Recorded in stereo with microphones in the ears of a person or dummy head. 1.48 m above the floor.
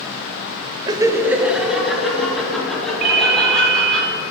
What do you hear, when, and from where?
0.9 s laughter: 20° right (ahead or behind), 0.6 m; by 4.0 s 10° left (ahead or behind), 4 m
3.0 s a ringtone: 50° right (ahead or behind), 0.9 m